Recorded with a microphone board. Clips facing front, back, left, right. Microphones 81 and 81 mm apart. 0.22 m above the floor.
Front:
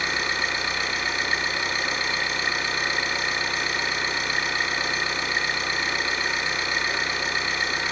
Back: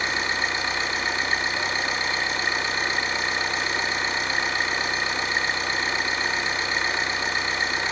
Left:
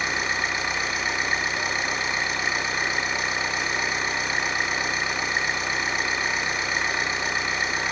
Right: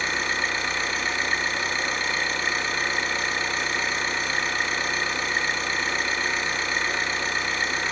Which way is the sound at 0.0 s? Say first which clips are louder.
Back 1 dB, even; 150° left.